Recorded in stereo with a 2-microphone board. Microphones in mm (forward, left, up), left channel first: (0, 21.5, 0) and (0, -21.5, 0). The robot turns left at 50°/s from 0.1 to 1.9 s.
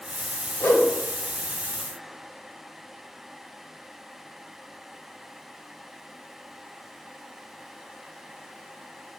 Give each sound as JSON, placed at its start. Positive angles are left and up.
{"t": 0.6, "sound": "a whoosh", "side_deg": 75, "distance_m": 2.0}